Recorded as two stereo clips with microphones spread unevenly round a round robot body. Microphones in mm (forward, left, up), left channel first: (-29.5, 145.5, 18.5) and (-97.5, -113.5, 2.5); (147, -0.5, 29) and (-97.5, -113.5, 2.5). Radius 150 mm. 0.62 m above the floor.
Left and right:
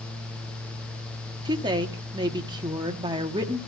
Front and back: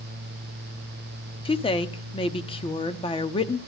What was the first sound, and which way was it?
A woman speaking, 45° right.